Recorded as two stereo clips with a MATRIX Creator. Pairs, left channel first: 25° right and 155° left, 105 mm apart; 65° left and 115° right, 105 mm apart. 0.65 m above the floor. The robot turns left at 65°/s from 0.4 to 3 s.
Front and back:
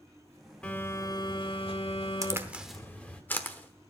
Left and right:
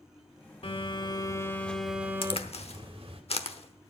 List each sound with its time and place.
0.6 s a phone buzzing: 60° left, 1.3 m; by 3.2 s 95° right, 1.3 m
2.2 s a crack: 100° left, 0.9 m; by 3.9 s 50° left, 0.9 m